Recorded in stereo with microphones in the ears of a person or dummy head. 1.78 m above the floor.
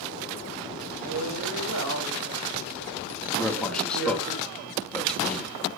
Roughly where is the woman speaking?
Right.